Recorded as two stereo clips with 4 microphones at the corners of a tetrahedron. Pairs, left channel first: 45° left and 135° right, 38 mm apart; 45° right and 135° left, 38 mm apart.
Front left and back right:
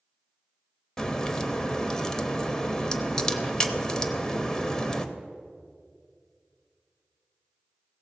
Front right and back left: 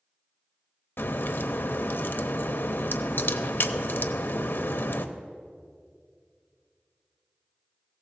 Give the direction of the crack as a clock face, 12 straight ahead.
1 o'clock.